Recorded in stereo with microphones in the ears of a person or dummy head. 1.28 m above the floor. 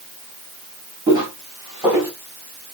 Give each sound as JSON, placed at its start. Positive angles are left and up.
{"t": 1.1, "sound": "footsteps", "side_deg": -20, "distance_m": 3.0}